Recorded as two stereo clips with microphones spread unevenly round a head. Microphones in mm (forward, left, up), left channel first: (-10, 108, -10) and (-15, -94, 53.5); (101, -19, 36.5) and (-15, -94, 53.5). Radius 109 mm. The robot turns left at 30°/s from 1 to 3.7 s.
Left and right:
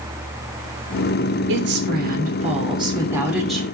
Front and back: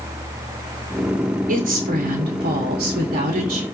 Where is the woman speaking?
125° right, 3 m; by 3.6 s 170° left, 3 m.